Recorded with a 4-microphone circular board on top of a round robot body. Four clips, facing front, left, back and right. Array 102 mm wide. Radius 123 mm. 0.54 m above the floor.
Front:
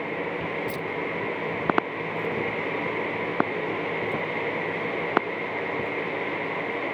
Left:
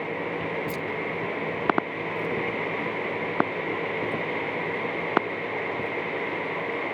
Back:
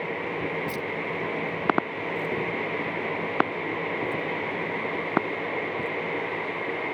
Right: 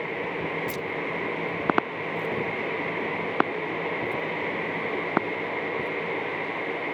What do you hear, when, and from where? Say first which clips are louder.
0.7 s keys jangling: even, front 1 dB; 90° right; by 6.0 s 145° right